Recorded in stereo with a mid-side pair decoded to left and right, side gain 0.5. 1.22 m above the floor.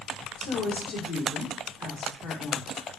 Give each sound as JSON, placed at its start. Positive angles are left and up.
{"t": 0.4, "sound": "a woman speaking", "azimuth_deg": 65, "distance_m": 1.9}